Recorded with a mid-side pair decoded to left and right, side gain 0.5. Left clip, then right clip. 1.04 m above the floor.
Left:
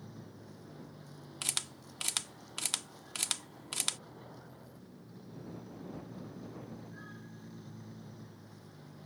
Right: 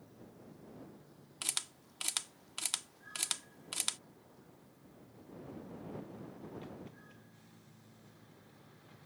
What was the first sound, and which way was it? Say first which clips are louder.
A vehicle: left 4 dB; 65° left.